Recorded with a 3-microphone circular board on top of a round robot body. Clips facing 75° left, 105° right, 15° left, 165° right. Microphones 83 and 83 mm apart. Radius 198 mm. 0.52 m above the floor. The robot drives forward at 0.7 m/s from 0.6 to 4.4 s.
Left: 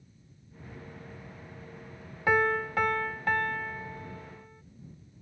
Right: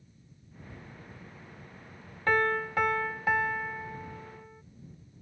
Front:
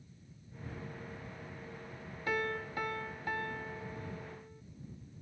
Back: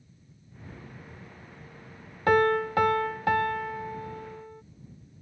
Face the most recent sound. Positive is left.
turn(degrees=175)